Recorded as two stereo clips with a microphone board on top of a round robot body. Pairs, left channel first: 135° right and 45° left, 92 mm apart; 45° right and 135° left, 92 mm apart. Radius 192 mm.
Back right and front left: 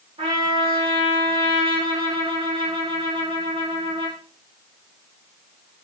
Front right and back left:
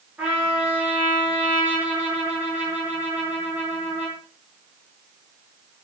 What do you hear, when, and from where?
0.2 s a trumpet: 60° left, 7 m